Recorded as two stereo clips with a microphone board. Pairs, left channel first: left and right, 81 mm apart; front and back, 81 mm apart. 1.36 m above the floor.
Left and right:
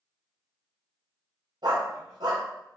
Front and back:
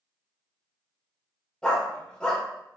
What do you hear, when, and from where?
1.6 s a dog barking: 80° right, 2 m